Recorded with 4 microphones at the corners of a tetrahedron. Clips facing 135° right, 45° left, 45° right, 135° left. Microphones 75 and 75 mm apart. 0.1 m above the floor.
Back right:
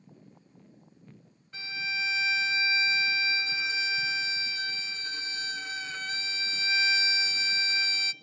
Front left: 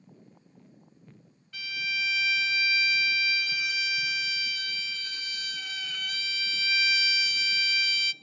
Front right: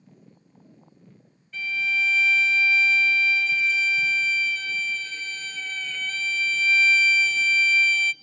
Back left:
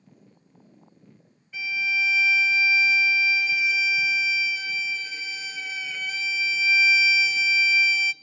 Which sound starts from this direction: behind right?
A violin, at 1.5 s.